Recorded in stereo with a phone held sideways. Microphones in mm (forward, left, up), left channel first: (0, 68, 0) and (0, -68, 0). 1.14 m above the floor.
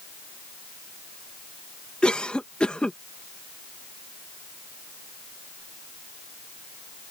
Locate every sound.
2.0 s a cough: 5° left (ahead or behind)